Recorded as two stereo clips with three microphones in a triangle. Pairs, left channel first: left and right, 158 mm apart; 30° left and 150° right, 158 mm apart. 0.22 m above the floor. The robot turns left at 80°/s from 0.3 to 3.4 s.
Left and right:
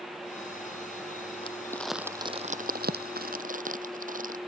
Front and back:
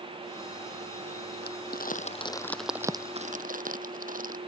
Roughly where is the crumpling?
Ahead left.